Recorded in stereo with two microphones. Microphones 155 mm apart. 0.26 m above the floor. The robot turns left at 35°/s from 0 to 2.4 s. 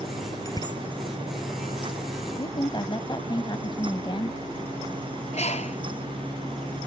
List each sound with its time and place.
0.5 s a bicycle bell: 20° left (ahead or behind); by 0.8 s 35° left (ahead or behind)
2.4 s a woman speaking: 35° left (ahead or behind)
5.3 s a bird: 45° left (ahead or behind)